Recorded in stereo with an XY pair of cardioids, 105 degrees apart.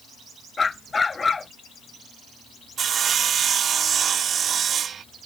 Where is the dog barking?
30° left.